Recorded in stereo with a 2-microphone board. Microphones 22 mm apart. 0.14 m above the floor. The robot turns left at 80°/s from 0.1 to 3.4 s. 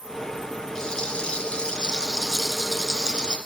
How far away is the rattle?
About 2.5 m.